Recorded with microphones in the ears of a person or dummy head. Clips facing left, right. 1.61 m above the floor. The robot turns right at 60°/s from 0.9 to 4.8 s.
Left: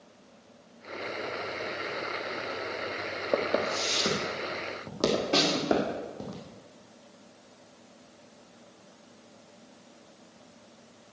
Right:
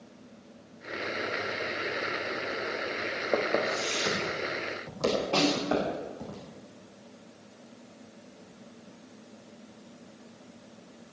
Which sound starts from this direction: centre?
Footsteps, at 3.3 s.